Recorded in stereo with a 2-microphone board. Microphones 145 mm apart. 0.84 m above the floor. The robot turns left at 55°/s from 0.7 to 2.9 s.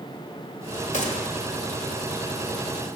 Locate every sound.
0.9 s a gunshot: 60° left (ahead or behind), 1.6 m; by 1.2 s 40° left (ahead or behind), 1.6 m